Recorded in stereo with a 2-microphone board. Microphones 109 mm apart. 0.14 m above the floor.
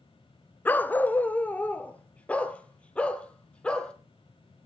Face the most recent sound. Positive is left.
turn(degrees=10)  # may be behind; listen again after turning